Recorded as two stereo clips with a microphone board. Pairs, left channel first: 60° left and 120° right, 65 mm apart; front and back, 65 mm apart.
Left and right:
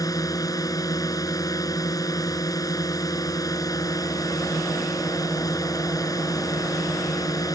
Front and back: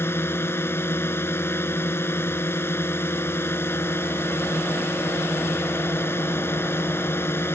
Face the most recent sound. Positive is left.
turn(degrees=50)